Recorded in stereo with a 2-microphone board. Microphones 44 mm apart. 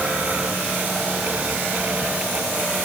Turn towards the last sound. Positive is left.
No sound to turn to.